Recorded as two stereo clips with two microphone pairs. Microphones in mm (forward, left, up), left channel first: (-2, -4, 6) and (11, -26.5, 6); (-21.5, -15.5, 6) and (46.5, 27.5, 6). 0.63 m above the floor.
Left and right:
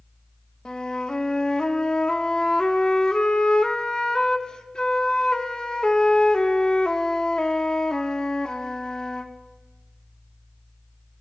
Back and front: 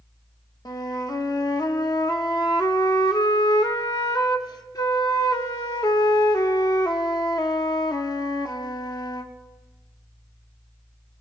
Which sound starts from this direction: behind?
A flute, at 0.7 s.